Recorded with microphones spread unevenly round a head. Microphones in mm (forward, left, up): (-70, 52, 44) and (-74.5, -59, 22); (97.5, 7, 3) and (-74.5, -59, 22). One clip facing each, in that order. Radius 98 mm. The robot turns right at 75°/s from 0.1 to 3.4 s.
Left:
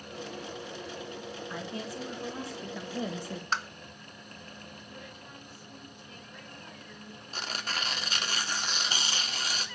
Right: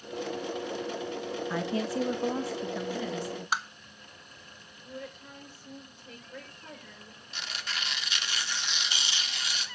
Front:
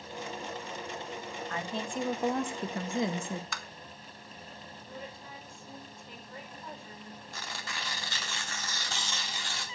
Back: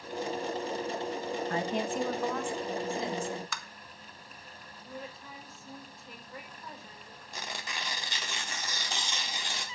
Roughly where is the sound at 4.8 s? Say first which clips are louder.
Right 4 dB, back 2 dB; right.